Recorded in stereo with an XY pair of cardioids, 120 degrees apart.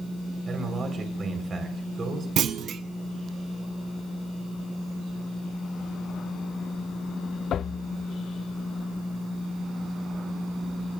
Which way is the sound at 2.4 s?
55° right.